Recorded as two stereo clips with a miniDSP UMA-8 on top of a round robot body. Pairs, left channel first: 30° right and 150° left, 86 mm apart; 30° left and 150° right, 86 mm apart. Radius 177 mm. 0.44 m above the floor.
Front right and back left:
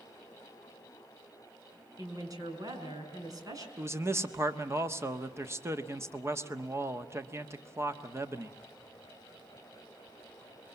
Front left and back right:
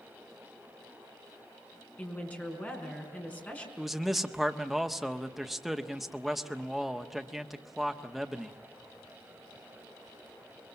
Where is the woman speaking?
105° left, 5.5 m.